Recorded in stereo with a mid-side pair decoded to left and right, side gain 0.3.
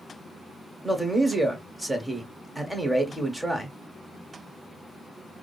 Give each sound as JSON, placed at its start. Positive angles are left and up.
{"t": 0.8, "sound": "a man speaking", "azimuth_deg": -5, "distance_m": 1.9}